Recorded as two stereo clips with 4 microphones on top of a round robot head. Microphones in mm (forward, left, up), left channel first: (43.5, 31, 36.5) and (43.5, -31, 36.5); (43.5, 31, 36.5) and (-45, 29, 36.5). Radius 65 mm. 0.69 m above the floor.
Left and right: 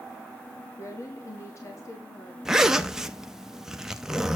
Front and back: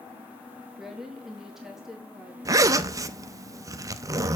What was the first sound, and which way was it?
A woman speaking, 100° left.